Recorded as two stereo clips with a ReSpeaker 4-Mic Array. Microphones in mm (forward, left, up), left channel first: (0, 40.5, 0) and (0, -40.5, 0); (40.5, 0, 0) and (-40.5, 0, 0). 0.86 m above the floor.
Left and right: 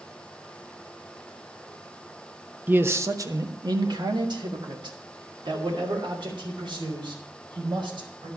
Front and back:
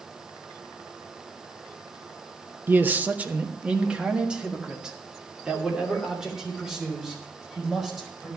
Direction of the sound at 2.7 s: 135° right.